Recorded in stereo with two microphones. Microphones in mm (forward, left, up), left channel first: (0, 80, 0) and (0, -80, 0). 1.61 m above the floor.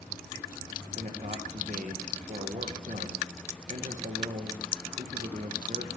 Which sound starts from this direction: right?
A man speaking, at 0.9 s.